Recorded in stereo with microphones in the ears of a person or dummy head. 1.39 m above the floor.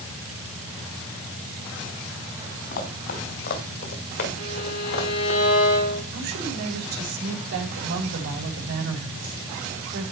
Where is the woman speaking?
60° right (ahead or behind), 6.5 m.